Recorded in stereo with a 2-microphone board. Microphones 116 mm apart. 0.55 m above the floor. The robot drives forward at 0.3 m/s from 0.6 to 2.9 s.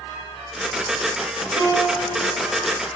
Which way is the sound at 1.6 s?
30° left (ahead or behind).